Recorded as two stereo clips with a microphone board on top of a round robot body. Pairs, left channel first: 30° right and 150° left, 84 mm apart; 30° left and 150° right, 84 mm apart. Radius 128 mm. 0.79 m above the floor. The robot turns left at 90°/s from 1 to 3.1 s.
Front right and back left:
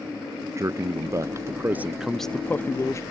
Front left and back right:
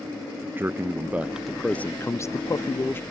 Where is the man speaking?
165° left, 0.7 m; by 3.0 s 15° right, 0.7 m.